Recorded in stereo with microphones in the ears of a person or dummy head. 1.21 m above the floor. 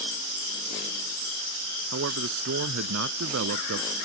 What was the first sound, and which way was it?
A man speaking, 90° right.